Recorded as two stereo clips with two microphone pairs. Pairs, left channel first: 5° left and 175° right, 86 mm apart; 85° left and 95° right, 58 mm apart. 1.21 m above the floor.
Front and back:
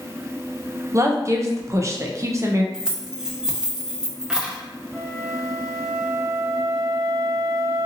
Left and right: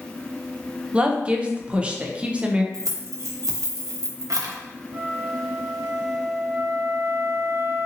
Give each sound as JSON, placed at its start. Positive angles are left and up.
{"t": 0.9, "sound": "a woman speaking", "azimuth_deg": -145, "distance_m": 0.6}
{"t": 2.7, "sound": "keys jangling", "azimuth_deg": -95, "distance_m": 0.7}
{"t": 4.9, "sound": "a flute", "azimuth_deg": -75, "distance_m": 1.5}